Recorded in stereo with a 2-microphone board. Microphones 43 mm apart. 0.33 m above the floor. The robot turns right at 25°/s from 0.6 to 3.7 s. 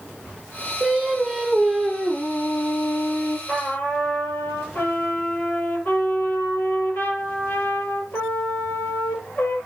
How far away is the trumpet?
About 8 m.